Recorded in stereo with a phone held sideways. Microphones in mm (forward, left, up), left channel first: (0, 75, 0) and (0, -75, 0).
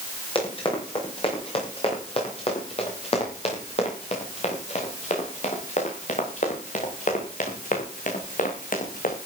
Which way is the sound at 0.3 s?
35° left (ahead or behind).